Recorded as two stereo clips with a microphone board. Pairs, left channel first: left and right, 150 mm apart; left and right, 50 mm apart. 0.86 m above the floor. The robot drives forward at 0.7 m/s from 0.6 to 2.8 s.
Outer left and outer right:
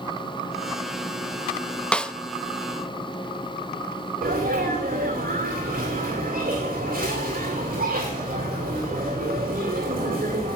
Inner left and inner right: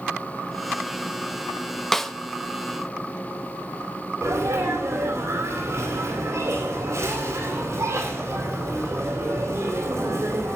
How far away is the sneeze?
About 3 m.